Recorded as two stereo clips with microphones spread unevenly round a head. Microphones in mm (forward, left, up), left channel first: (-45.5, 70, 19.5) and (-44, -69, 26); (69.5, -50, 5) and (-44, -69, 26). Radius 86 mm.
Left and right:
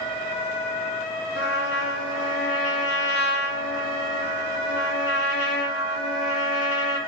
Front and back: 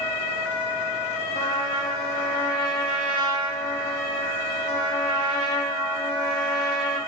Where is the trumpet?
70° left, 1.2 m.